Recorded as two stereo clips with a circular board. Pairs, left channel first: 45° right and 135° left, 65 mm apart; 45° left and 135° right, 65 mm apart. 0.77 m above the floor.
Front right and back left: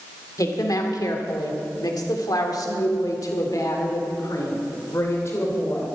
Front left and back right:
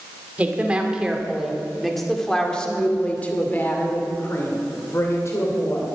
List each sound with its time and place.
0.4 s a woman speaking: 70° right, 2 m; by 5.9 s 5° left, 3 m